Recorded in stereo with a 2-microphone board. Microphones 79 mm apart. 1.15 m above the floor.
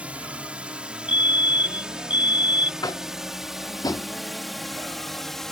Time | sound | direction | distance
0.0 | a drone | 15° right (ahead or behind) | ?
1.1 | a fire alarm | 20° right (ahead or behind) | ?
2.8 | tapping | 55° left (ahead or behind) | ?